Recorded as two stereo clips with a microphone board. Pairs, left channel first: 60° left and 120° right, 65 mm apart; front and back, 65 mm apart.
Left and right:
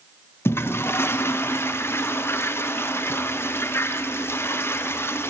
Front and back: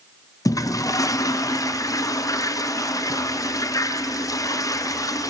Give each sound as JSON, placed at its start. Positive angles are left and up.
{"t": 0.5, "sound": "a toilet flushing", "azimuth_deg": 15, "distance_m": 0.5}